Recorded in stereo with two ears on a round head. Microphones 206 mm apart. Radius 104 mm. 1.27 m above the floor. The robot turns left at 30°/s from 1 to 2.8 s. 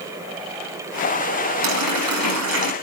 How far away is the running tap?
About 8.5 m.